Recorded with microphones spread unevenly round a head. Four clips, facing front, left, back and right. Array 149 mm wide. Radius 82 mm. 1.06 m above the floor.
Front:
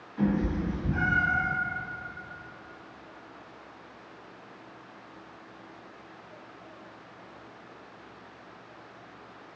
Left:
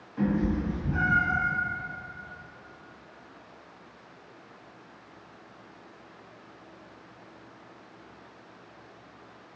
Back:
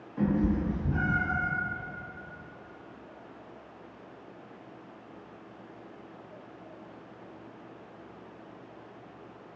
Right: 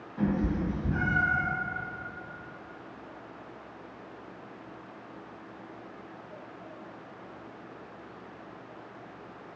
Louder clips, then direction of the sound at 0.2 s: Left 2 dB, back 1 dB; 170° left.